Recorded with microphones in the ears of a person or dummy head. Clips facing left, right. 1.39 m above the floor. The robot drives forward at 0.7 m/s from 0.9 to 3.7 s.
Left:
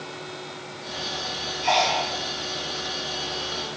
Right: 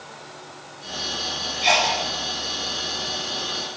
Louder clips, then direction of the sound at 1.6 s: Even; 75° right (ahead or behind).